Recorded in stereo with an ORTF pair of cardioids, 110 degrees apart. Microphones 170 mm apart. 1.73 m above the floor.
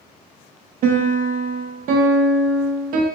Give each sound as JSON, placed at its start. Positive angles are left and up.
{"t": 0.8, "sound": "a piano", "azimuth_deg": -60, "distance_m": 0.8}